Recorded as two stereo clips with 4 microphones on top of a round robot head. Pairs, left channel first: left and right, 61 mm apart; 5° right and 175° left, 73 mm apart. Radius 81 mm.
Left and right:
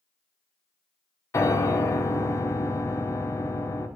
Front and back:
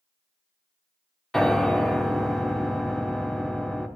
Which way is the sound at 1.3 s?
80° left.